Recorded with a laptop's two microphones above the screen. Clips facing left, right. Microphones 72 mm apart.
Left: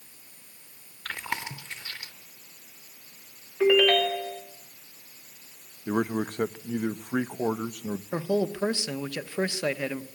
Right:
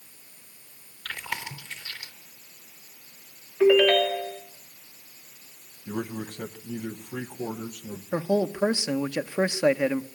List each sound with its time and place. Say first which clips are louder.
1.1 s chewing: left 1 dB; 25° left (ahead or behind), 3.5 m
3.6 s a ringtone: right 2 dB; centre (ahead or behind), 2 m
5.9 s a man speaking: left 6 dB; 55° left (ahead or behind), 0.8 m
8.1 s a man speaking: right 3 dB; 20° right (ahead or behind), 0.8 m